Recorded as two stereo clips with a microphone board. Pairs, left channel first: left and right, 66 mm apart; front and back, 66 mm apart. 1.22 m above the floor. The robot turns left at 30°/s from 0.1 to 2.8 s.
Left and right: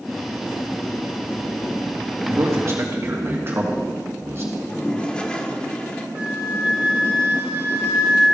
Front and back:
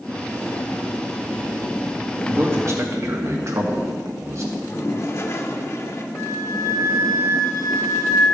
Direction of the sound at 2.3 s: 125° right.